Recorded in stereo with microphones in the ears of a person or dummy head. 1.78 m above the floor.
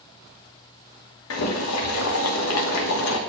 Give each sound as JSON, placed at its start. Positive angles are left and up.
{"t": 1.3, "sound": "boiling", "side_deg": 85, "distance_m": 1.2}